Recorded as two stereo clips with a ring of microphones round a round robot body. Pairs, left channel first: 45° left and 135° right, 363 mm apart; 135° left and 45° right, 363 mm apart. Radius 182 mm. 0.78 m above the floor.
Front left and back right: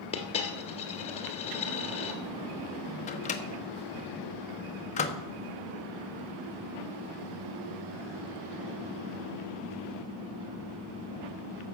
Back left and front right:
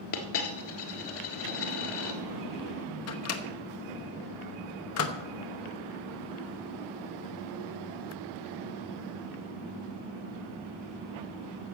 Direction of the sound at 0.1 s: 120° left.